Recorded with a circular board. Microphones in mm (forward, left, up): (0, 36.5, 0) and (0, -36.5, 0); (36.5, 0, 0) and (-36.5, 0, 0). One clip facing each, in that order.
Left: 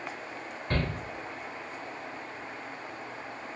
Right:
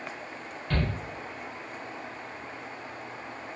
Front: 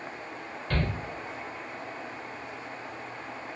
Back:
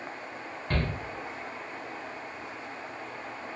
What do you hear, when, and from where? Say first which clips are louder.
0.7 s a shout: right 1 dB, front 1 dB; 135° left, 1.0 m